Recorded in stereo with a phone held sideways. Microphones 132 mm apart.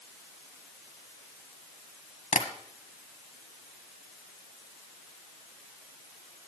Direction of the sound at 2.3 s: 65° left (ahead or behind).